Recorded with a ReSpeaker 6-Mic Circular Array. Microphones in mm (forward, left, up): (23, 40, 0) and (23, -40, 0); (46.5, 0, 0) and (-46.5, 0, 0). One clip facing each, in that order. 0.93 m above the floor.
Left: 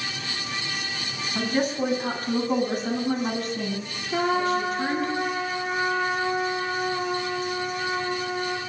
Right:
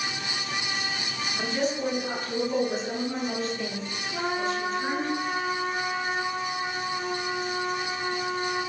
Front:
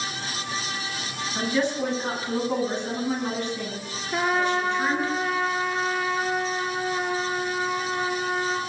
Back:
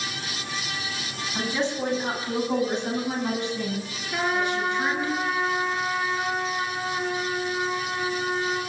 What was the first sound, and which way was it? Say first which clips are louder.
A woman speaking: left 4 dB, front 2 dB; 115° left.